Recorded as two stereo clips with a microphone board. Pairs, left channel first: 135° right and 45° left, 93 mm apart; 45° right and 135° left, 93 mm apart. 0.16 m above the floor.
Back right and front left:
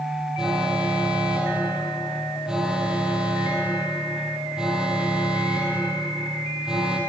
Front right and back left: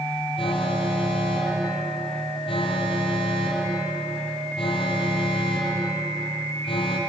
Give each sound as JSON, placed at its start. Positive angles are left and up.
{"t": 0.4, "sound": "an alarm", "azimuth_deg": -35, "distance_m": 4.5}